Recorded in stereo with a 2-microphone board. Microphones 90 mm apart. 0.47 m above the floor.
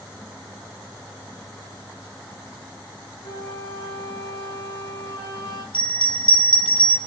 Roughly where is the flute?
Left.